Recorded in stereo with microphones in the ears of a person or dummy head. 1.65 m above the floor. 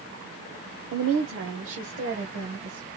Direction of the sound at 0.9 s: 75° right (ahead or behind).